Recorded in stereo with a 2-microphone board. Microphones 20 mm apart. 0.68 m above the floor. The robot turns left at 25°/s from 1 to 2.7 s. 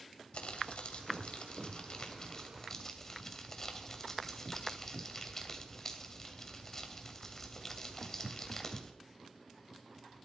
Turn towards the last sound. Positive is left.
turn(degrees=20)